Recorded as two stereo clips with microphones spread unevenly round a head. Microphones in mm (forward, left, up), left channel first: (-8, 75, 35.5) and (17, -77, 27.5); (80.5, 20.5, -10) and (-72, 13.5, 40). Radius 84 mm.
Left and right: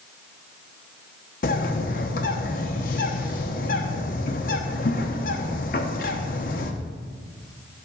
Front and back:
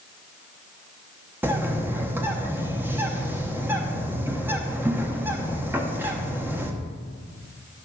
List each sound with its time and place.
1.4 s a bird: 125° left, 1.1 m